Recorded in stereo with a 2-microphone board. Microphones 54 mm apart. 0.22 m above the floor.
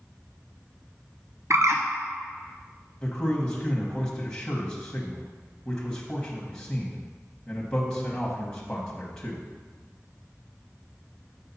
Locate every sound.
1.5 s a bird: 65° right (ahead or behind), 0.8 m
3.0 s a man speaking: 15° left (ahead or behind), 1.0 m